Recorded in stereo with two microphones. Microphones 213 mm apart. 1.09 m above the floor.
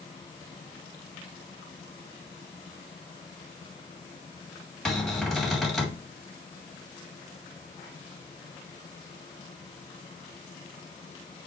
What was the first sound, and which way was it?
A cupboard door, centre (ahead or behind).